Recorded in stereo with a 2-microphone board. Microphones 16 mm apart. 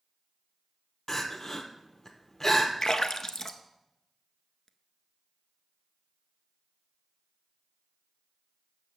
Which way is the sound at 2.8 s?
40° left (ahead or behind).